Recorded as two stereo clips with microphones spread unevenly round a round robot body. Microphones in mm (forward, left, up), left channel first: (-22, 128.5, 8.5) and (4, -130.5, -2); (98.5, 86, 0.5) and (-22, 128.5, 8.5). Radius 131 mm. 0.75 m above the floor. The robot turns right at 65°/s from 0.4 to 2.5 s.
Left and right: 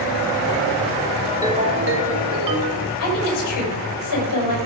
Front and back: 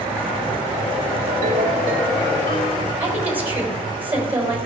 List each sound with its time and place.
1.3 s a ringtone: 170° right, 1.2 m; by 2.9 s 90° right, 1.2 m
3.0 s a woman speaking: 85° left, 4 m